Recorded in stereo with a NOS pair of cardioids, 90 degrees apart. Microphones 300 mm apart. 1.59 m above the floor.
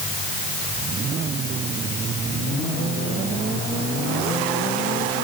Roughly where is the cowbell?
I don't hear a cowbell.